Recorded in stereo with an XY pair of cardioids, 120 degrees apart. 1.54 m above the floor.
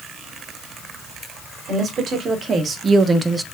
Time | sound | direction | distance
1.7 | a woman speaking | 50° right | 2.5 m